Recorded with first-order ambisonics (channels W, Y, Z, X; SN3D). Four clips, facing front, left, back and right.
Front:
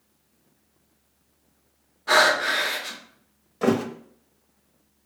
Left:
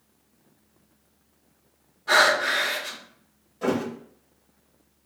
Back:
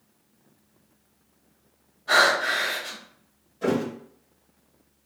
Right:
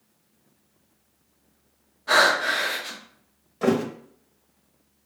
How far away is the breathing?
About 1.1 m.